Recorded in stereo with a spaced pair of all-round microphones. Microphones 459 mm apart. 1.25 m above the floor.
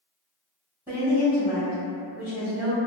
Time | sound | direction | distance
0.9 | a woman speaking | 5° right (ahead or behind) | 1.7 m